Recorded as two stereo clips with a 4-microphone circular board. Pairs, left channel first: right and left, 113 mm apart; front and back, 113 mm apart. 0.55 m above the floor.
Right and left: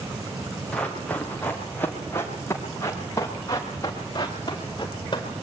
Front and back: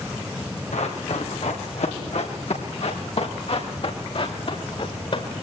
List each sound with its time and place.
0.7 s running footsteps: 10° right, 4 m; by 5.3 s 40° right, 5 m